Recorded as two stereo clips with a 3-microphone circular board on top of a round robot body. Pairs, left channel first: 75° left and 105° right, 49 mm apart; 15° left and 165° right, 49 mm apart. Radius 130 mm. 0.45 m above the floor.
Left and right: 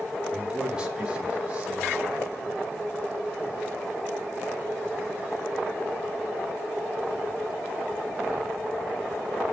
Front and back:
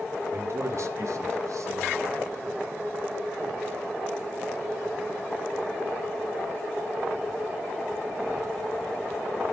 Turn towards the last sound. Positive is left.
turn(degrees=-175)